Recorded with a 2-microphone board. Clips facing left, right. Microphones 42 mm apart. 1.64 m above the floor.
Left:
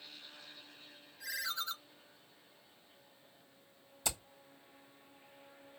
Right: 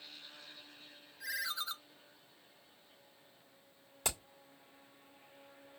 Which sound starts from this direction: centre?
A ringtone, at 1.2 s.